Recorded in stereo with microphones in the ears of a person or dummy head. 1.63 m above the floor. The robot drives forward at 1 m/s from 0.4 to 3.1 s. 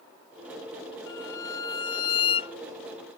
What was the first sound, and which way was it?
A violin, 20° left (ahead or behind).